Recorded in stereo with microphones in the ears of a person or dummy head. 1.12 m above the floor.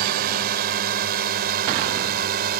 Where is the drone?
60° right (ahead or behind).